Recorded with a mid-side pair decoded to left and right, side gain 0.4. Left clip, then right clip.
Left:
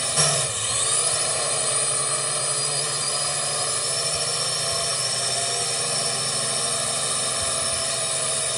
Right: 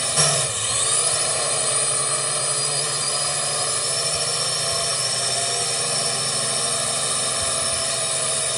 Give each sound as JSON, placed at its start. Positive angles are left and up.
{"t": 0.0, "sound": "a drone", "azimuth_deg": -20}